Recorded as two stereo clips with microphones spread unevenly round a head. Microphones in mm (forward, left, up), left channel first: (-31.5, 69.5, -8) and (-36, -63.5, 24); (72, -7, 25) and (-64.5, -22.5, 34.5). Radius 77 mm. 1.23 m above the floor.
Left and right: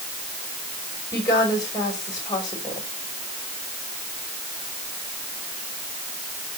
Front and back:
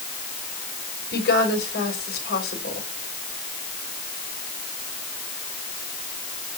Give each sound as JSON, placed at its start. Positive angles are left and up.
{"t": 1.1, "sound": "a woman speaking", "azimuth_deg": 20, "distance_m": 5.5}